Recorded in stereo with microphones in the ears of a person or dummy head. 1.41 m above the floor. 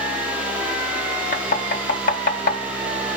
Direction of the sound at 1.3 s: 45° left (ahead or behind).